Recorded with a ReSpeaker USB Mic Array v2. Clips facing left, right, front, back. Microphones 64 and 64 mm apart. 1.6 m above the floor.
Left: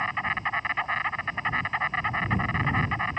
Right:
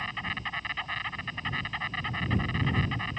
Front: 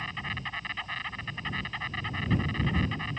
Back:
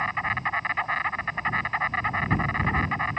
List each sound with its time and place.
0.0 s an insect: 140° left